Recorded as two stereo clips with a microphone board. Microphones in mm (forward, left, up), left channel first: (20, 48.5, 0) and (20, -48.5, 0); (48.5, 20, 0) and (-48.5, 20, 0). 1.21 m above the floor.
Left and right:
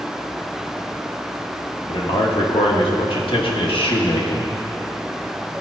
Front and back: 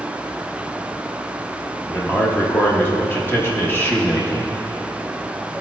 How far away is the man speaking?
About 1.3 m.